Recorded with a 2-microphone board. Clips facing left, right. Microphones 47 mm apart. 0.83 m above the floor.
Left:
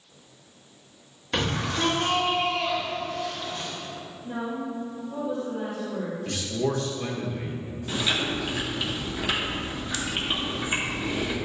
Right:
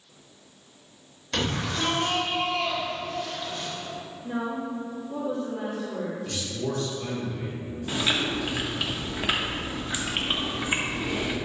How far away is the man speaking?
About 1.2 m.